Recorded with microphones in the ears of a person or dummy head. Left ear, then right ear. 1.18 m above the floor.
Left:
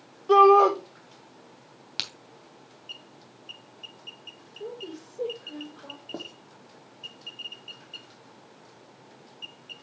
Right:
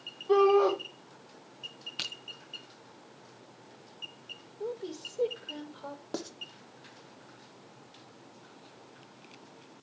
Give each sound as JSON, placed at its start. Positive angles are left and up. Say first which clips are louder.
{"t": 0.3, "sound": "a shout", "louder": "left 7 dB", "side_deg": 80, "distance_m": 4.0}
{"t": 2.0, "sound": "a crack", "louder": "left 4 dB", "side_deg": 20, "distance_m": 2.0}
{"t": 4.6, "sound": "a woman speaking", "louder": "right 1 dB", "side_deg": -45, "distance_m": 4.5}
{"t": 6.1, "sound": "writing", "louder": "even", "side_deg": -65, "distance_m": 1.3}